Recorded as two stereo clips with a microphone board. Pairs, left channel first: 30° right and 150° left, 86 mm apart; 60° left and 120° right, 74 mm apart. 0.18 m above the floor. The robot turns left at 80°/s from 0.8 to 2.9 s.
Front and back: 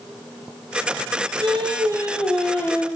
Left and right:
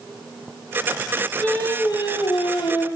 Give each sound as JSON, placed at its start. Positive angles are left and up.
{"t": 1.4, "sound": "singing", "azimuth_deg": 140, "distance_m": 3.5}